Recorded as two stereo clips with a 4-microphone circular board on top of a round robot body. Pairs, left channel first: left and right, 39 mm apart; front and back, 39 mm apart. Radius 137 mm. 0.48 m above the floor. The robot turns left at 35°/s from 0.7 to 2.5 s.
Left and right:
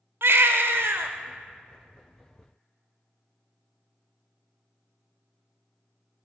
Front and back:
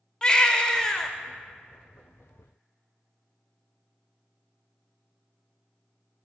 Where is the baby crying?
75° right, 0.6 m; by 1.1 s 90° right, 0.6 m.